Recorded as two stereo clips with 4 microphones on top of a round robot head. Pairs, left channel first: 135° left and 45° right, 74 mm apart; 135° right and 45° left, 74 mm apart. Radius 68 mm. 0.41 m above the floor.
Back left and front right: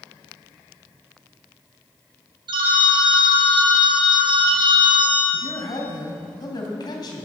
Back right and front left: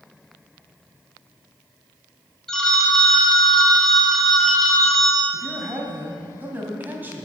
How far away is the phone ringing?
About 2 m.